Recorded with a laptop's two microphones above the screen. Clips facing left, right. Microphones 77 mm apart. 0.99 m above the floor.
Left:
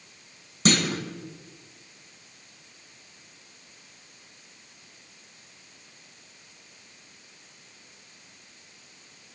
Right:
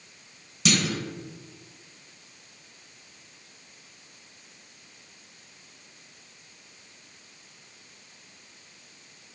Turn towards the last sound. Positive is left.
turn(degrees=40)  # may be behind; listen again after turning